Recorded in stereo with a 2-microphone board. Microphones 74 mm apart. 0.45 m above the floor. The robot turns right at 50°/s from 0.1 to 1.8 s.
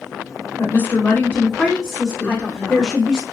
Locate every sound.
0.6 s a woman speaking: 105° left, 0.8 m; by 3.2 s 165° left, 0.8 m
2.2 s a woman speaking: 15° left (ahead or behind), 0.9 m